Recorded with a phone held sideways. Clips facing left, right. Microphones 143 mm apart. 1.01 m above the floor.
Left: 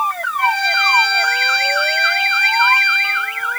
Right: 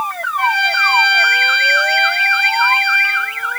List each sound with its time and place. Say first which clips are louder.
0.4 s a trumpet: right 1 dB; 75° right (ahead or behind), 3.5 m